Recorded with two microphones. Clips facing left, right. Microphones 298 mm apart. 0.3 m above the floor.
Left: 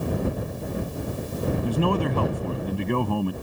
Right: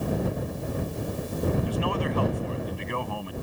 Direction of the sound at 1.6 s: 55° left (ahead or behind).